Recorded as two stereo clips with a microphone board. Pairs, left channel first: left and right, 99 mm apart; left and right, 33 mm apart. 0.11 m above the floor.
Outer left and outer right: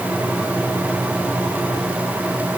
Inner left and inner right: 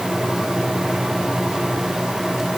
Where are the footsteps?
No footsteps in this recording.